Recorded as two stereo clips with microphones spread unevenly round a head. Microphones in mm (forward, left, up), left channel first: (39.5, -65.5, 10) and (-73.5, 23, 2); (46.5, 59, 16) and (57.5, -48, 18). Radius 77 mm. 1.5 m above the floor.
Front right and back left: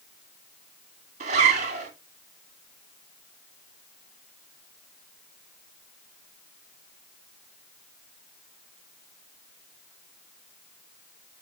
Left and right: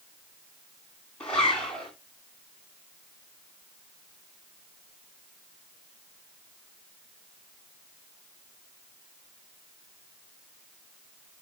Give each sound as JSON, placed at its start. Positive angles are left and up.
{"t": 1.2, "sound": "a zipper", "azimuth_deg": 180, "distance_m": 2.0}